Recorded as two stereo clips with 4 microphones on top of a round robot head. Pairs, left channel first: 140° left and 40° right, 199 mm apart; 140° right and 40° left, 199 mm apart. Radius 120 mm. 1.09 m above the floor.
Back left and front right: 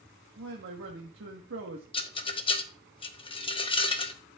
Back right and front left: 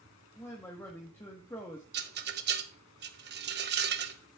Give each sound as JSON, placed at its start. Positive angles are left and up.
{"t": 0.4, "sound": "a man speaking", "azimuth_deg": -60, "distance_m": 1.3}
{"t": 1.9, "sound": "a rattle", "azimuth_deg": 75, "distance_m": 0.9}